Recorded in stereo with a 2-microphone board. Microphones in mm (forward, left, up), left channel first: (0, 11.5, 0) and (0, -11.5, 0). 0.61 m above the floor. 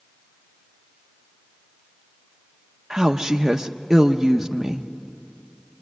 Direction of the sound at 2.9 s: 15° right (ahead or behind).